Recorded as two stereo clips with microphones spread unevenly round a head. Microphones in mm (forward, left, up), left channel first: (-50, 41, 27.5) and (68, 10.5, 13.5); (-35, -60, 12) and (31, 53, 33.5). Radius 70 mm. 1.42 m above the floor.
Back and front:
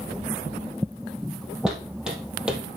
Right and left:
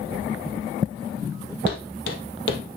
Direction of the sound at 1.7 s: 105° right.